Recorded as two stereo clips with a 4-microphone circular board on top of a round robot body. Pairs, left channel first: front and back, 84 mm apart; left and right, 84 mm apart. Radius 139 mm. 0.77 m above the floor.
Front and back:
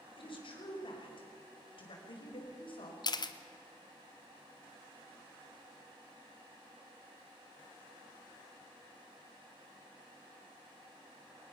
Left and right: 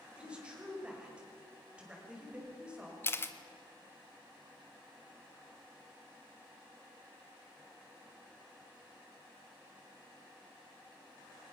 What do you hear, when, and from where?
0.2 s a woman speaking: 10° right, 5.5 m
3.0 s a camera shutter: 30° left, 1.5 m